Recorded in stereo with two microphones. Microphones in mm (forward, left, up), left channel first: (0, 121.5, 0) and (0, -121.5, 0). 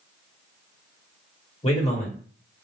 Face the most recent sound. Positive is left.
turn(degrees=25)  # may be behind; listen again after turning